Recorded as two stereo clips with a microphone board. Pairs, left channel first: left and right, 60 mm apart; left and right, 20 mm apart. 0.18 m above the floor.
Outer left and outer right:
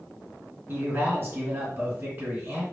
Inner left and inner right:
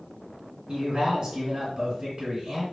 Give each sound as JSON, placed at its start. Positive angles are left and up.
{"t": 0.7, "sound": "a man speaking", "side_deg": -35, "distance_m": 1.8}